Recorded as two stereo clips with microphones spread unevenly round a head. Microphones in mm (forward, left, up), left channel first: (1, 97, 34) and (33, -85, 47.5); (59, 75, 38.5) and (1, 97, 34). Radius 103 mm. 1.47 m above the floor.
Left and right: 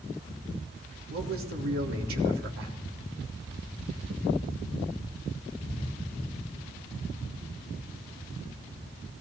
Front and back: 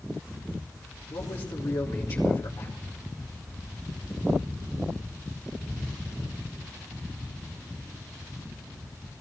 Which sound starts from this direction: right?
A man speaking, at 1.1 s.